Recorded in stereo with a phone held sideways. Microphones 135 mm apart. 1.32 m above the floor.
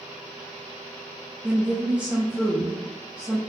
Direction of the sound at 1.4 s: 10° right (ahead or behind).